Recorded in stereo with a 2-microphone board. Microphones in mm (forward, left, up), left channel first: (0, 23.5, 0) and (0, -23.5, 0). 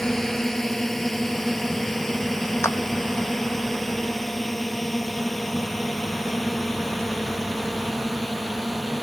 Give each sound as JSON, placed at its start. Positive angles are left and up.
{"t": 0.0, "sound": "a drone", "side_deg": 10}
{"t": 2.6, "sound": "a clap", "side_deg": 85}